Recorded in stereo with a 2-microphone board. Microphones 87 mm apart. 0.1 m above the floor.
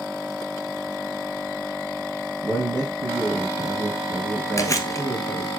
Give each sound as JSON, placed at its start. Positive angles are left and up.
{"t": 2.4, "sound": "a man speaking", "side_deg": -55, "distance_m": 3.5}
{"t": 4.6, "sound": "chewing", "side_deg": 40, "distance_m": 1.1}